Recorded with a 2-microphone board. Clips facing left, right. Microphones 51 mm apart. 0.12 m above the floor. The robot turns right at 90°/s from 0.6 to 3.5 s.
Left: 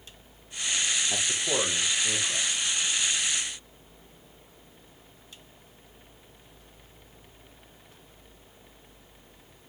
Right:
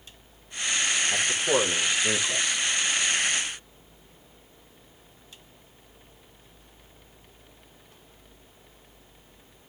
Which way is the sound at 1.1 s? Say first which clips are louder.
Right 5 dB; 155° left.